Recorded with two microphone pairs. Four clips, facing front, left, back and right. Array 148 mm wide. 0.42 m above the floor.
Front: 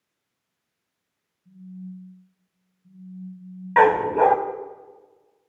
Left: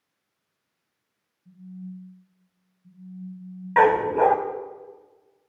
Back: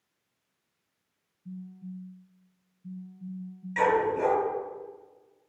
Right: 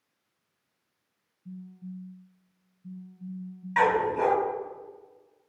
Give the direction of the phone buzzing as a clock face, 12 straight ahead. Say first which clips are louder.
Left 2 dB, front 2 dB; 4 o'clock.